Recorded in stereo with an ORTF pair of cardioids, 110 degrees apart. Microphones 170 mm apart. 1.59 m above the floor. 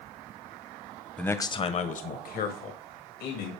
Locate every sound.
1.2 s a man speaking: 5° left, 0.9 m; by 3.5 s 75° left, 2.5 m